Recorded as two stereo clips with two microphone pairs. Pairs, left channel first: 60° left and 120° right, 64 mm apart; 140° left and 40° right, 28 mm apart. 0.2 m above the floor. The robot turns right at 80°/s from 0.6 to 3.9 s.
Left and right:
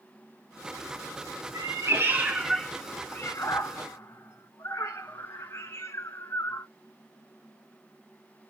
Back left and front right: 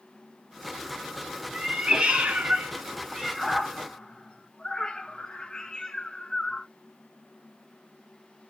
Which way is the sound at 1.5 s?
110° right.